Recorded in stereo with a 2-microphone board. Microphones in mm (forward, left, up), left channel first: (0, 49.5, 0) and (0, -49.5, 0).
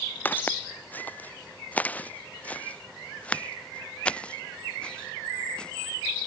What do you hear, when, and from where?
0.2 s footsteps: 20° left (ahead or behind); by 6.3 s 10° left (ahead or behind)